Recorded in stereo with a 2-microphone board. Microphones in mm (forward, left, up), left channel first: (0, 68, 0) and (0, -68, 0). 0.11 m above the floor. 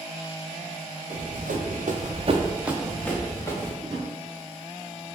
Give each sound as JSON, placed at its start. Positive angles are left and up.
{"t": 1.1, "sound": "running footsteps", "side_deg": -80, "distance_m": 1.8}
{"t": 3.8, "sound": "a drawer", "side_deg": -30, "distance_m": 1.2}